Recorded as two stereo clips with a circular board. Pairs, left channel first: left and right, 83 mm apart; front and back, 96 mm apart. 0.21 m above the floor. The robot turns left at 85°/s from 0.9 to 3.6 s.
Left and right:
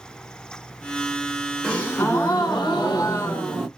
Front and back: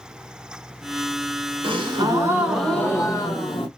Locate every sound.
1.6 s a gasp: 175° left, 1.4 m; by 3.7 s 5° left, 1.4 m